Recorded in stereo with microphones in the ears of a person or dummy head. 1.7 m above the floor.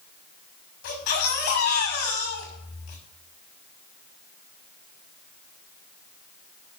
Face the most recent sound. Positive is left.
turn(degrees=70)  # may be behind; listen again after turning